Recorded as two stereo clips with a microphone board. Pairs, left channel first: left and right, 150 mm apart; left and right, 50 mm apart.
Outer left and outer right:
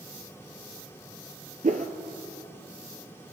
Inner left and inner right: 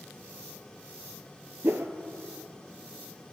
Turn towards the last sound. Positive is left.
turn(degrees=-60)  # may be behind; listen again after turning